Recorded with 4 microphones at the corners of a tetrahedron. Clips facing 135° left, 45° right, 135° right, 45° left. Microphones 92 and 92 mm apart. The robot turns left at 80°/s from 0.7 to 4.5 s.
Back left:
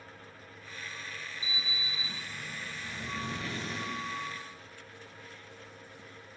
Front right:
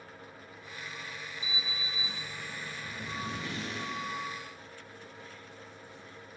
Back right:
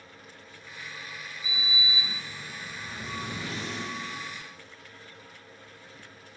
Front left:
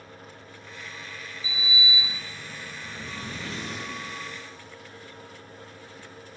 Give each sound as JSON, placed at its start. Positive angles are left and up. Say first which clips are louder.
{"t": 1.4, "sound": "a sliding door", "louder": "even, front left 3 dB", "azimuth_deg": -50, "distance_m": 1.9}